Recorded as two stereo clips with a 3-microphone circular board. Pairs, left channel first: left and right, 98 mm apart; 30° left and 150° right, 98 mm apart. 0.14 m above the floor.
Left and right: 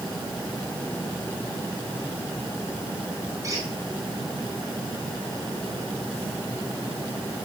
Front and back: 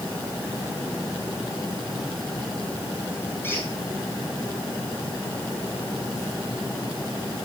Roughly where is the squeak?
Ahead right.